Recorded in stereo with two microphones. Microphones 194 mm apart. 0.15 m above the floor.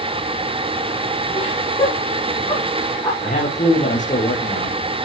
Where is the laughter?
30° left (ahead or behind), 8 m.